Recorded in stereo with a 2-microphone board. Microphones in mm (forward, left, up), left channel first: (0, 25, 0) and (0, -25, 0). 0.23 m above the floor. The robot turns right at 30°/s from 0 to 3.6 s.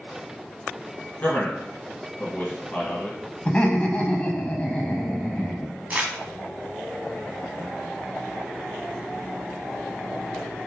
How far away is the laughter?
About 1.1 m.